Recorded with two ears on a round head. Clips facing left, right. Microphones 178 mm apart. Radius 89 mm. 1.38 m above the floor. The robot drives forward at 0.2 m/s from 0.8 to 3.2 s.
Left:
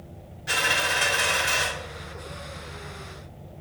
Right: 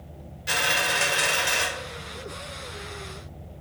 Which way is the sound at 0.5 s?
40° right (ahead or behind).